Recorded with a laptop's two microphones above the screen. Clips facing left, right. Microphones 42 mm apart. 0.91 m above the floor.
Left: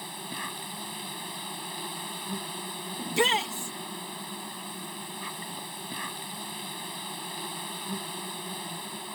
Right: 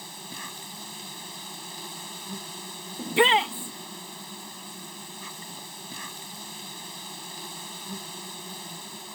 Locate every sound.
0.0 s an insect: 15° left (ahead or behind)
3.0 s a shout: 25° right (ahead or behind)